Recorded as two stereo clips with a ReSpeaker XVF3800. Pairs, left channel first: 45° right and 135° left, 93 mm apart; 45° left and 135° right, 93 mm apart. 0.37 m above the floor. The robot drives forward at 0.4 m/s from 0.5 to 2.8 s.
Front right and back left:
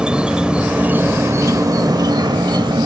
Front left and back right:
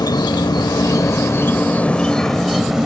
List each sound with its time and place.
0.0 s an insect: 60° left, 0.8 m; by 2.9 s 140° left, 0.9 m